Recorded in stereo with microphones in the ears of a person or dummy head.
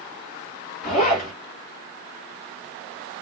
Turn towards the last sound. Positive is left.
turn(degrees=40)  # may be behind; listen again after turning